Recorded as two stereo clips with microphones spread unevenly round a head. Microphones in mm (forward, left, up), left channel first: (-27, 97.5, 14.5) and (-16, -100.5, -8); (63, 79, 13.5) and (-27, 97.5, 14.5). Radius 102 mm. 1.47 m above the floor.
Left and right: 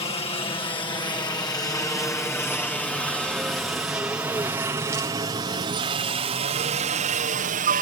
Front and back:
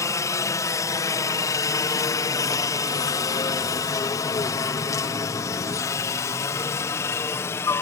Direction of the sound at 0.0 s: 30° left.